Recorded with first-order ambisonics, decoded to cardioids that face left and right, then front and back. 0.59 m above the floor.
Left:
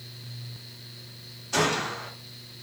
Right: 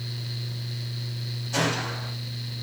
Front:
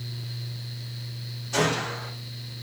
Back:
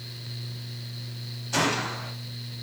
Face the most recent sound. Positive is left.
turn(degrees=135)